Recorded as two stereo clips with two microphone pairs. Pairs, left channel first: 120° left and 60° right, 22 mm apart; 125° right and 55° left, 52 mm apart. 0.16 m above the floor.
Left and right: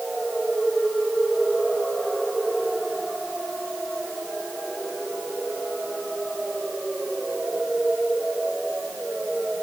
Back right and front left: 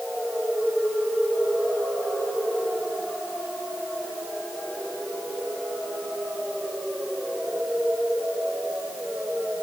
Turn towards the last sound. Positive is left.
No sound to turn to.